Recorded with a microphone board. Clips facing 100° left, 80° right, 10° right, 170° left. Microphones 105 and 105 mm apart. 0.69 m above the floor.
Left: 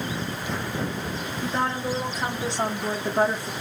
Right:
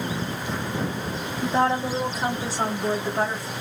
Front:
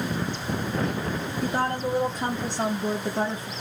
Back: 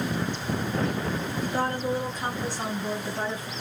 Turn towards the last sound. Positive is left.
turn(degrees=40)